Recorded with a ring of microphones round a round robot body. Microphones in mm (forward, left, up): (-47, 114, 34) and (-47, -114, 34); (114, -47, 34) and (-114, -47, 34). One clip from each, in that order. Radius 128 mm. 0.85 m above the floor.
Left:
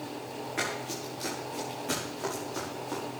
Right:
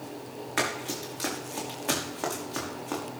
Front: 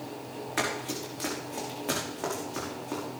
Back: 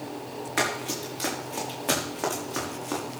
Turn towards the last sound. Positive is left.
turn(degrees=-135)